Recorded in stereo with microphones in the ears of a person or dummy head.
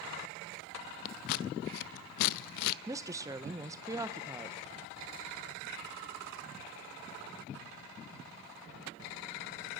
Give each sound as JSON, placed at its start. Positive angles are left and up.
{"t": 1.1, "sound": "scissors", "side_deg": 50, "distance_m": 0.5}
{"t": 2.9, "sound": "a woman speaking", "side_deg": -20, "distance_m": 1.0}